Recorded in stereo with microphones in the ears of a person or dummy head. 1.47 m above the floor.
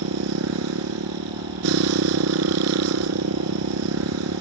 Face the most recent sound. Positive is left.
turn(degrees=-80)